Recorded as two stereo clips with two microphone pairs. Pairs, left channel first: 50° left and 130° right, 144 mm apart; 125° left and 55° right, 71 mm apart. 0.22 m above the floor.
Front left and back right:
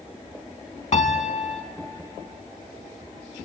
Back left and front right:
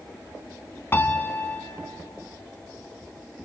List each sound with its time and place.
0.9 s a piano: 75° left, 0.6 m